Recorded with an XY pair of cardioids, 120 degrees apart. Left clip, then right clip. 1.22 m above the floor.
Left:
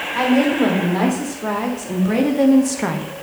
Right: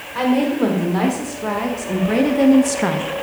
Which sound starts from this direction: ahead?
A woman speaking, at 0.1 s.